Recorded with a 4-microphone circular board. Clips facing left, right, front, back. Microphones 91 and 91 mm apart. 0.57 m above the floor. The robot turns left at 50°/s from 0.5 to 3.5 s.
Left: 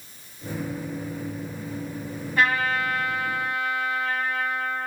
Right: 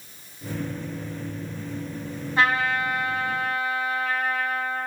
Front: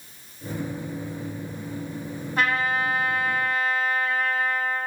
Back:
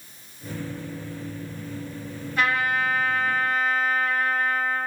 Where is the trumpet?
35° right, 1.0 m; by 4.9 s 95° right, 1.0 m.